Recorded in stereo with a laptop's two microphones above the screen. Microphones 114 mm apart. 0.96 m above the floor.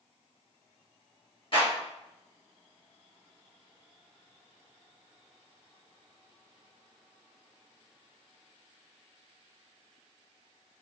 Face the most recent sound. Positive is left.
turn(degrees=45)  # may be behind; listen again after turning